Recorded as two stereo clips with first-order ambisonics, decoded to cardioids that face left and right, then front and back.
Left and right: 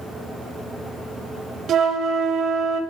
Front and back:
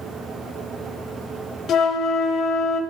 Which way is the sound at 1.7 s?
45° right.